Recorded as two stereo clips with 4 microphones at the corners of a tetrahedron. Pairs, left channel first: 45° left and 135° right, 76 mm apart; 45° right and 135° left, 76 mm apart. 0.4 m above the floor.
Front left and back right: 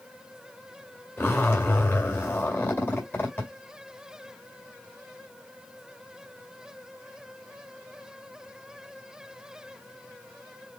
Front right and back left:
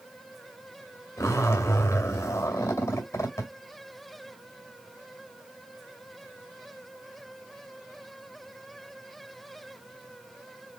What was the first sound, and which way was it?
A zipper, 10° right.